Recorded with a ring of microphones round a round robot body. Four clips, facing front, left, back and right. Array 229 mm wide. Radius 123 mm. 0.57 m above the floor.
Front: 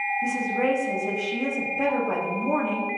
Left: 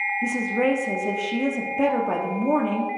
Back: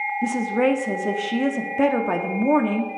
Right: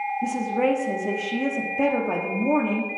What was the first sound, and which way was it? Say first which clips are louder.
A woman speaking: even, back 5 dB; 175° left.